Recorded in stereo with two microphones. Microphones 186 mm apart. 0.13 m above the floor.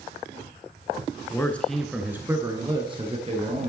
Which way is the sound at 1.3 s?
15° left (ahead or behind).